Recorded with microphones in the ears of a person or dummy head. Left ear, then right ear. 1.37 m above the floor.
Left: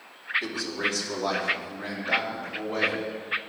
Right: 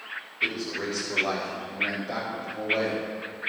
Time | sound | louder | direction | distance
0.4 | a man speaking | right 1 dB | 85° left | 3 m